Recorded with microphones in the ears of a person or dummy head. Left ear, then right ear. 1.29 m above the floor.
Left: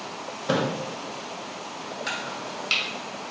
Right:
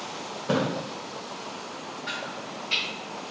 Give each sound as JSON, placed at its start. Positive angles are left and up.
{"t": 0.5, "sound": "a splash", "side_deg": 25, "distance_m": 1.4}
{"t": 2.1, "sound": "chopping", "side_deg": 75, "distance_m": 1.1}